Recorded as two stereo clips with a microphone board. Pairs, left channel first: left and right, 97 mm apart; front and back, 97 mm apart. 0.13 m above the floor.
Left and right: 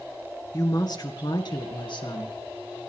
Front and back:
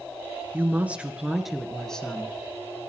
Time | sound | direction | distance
0.5 | a woman speaking | 120° left | 2.5 m